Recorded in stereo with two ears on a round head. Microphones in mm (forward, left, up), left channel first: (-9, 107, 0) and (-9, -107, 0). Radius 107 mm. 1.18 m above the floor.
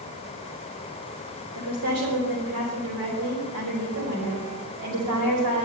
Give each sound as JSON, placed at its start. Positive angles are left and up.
{"t": 1.6, "sound": "a woman speaking", "side_deg": -70, "distance_m": 4.5}